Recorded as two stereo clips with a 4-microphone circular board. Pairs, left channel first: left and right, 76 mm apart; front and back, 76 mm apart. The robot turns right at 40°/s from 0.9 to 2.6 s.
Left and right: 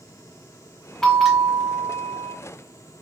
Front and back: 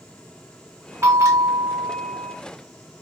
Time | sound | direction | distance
1.0 | a bell | 165° left | 1.4 m